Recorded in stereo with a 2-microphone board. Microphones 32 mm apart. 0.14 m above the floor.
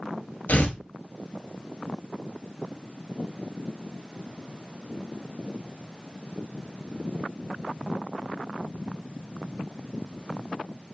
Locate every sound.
0.5 s tearing paper: 60° left (ahead or behind), 0.8 m